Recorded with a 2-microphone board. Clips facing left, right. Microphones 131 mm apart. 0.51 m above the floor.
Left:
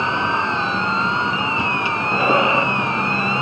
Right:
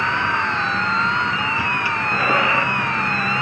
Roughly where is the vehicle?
Left.